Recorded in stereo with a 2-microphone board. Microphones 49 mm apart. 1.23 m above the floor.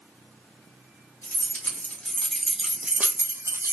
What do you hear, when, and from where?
1.2 s keys jangling: 40° left (ahead or behind), 1.2 m; by 3.7 s 65° right (ahead or behind), 0.7 m